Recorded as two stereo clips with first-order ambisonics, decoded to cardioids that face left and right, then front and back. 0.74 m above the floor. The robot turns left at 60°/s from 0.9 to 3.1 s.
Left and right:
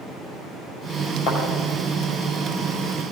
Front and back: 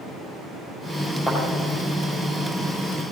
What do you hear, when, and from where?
1.3 s a thud: 65° left, 6 m; by 1.4 s 60° left, 6 m